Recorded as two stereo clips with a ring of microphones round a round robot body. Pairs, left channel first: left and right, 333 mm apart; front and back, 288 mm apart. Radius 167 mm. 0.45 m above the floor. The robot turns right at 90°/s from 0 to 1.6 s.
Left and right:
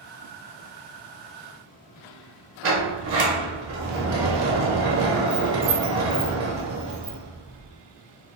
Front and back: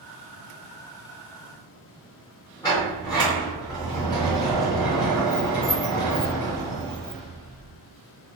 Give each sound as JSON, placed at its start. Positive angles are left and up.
{"t": 2.6, "sound": "a sliding door", "azimuth_deg": -70, "distance_m": 0.7}